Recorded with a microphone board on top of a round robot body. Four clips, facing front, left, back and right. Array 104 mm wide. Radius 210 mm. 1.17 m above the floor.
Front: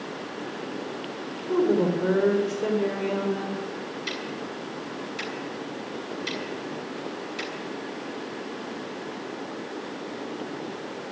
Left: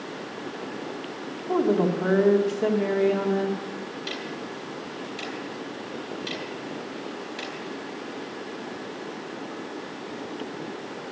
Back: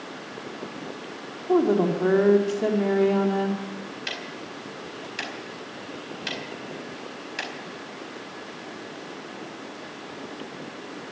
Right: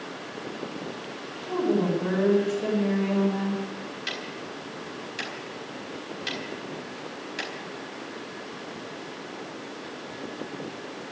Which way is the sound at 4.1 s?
160° right.